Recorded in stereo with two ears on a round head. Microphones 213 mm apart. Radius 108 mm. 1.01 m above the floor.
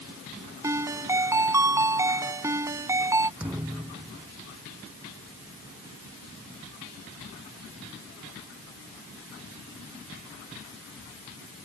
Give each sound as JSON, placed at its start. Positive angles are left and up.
{"t": 0.6, "sound": "a ringtone", "side_deg": -15}
{"t": 3.4, "sound": "a thud", "side_deg": -10}